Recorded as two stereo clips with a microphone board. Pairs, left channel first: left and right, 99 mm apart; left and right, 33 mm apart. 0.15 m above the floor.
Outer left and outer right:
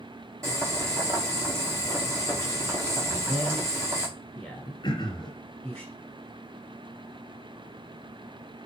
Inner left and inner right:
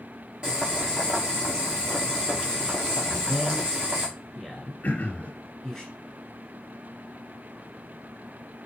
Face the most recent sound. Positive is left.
turn(degrees=45)  # may be behind; listen again after turning